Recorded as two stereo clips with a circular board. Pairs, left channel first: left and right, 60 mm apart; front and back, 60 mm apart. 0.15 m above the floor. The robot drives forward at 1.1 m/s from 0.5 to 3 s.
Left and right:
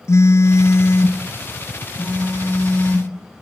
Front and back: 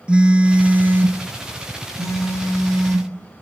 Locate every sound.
0.1 s a phone buzzing: 110° left, 1.2 m; by 3.1 s 165° left, 3.5 m